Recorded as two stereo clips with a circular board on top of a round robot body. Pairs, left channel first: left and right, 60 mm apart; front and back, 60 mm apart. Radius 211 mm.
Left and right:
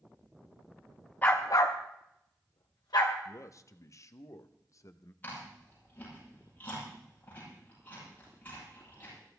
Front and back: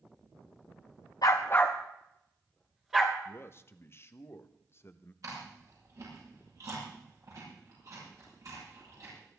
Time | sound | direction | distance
1.2 | a dog barking | 20° left | 0.6 m
3.2 | a man speaking | 50° left | 1.0 m
5.2 | chewing | 150° left | 10 m